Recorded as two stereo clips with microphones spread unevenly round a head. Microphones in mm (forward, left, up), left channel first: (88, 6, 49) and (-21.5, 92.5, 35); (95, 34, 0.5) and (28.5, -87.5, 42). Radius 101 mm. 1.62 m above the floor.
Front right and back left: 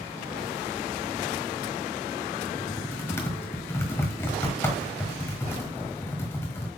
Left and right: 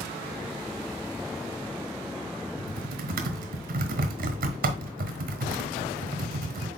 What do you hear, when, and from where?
2.6 s typing on a keyboard: 115° right, 1.3 m